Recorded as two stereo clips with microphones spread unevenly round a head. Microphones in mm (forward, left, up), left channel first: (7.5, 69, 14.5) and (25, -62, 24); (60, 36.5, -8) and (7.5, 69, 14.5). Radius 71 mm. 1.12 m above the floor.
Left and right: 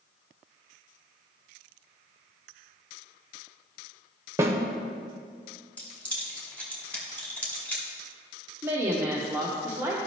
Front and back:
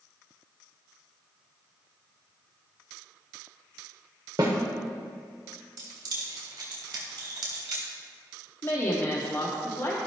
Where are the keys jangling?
Straight behind, 1.3 m.